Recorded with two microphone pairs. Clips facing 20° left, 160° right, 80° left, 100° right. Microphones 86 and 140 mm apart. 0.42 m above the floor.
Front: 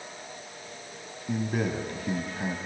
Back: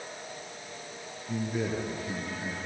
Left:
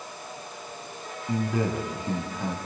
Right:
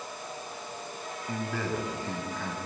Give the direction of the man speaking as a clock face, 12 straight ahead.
12 o'clock.